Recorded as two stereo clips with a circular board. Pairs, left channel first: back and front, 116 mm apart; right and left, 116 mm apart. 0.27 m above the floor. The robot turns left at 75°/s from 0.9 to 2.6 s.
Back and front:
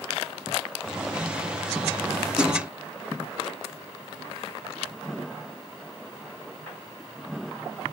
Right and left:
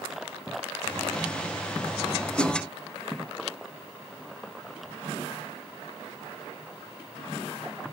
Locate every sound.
2.4 s a splash: 95° right, 1.3 m; by 2.6 s 115° right, 1.3 m